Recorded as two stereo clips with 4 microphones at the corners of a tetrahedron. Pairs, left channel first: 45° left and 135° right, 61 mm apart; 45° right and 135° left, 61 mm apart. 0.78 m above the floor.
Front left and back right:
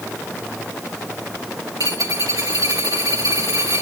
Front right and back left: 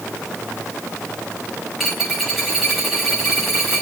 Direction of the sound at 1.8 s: 140° right.